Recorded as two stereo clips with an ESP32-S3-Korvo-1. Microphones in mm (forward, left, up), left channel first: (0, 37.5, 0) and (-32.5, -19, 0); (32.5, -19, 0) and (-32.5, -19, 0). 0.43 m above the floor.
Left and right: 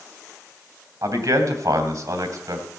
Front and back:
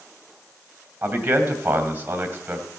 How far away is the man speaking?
About 2.5 m.